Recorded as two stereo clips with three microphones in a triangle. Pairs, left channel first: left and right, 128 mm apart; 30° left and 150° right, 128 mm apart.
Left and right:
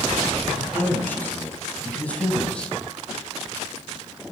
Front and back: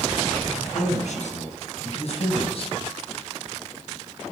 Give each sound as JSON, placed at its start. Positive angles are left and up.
{"t": 0.6, "sound": "a man speaking", "azimuth_deg": 15, "distance_m": 5.0}